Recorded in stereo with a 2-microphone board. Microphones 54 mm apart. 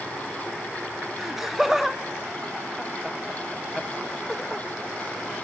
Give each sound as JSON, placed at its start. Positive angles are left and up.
{"t": 1.2, "sound": "laughter", "side_deg": -5, "distance_m": 1.2}